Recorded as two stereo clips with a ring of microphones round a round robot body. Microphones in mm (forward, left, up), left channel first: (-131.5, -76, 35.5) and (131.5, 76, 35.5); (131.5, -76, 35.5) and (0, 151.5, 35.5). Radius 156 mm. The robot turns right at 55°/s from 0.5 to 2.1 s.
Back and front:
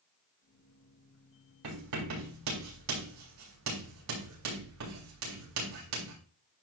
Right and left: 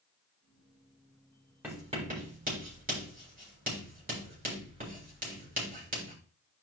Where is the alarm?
I don't hear an alarm.